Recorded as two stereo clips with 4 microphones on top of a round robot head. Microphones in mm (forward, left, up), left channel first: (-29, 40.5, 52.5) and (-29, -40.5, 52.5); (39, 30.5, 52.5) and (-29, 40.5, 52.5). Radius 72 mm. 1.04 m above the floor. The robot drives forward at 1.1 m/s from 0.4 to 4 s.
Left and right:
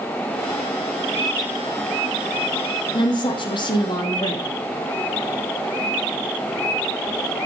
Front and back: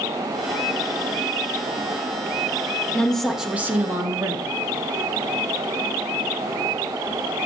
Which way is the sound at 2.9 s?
65° left.